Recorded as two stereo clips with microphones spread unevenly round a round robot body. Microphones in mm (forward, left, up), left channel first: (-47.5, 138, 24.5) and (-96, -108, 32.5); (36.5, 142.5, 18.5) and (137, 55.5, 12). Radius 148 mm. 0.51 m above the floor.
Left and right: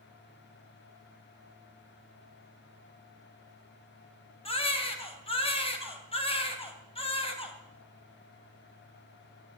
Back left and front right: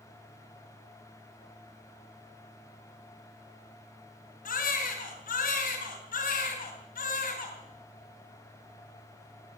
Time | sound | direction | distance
4.5 | a baby crying | 145° left | 3.5 m